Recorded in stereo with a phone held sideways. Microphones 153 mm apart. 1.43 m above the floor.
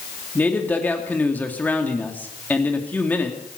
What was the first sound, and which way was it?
A man speaking, 10° left (ahead or behind).